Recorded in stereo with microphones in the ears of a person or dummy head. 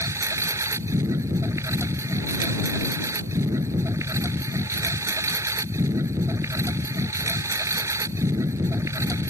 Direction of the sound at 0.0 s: 15° right (ahead or behind).